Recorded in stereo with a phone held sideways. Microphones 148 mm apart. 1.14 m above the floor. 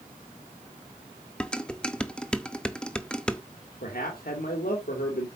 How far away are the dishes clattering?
About 0.8 m.